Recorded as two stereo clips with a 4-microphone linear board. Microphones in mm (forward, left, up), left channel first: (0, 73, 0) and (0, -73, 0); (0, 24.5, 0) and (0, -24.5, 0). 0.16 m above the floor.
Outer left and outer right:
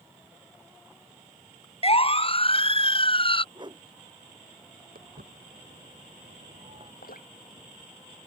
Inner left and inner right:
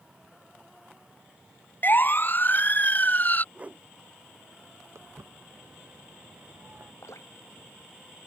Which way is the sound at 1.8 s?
40° left (ahead or behind).